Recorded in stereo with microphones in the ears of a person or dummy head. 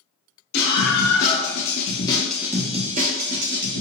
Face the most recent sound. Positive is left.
turn(degrees=-65)  # may be behind; listen again after turning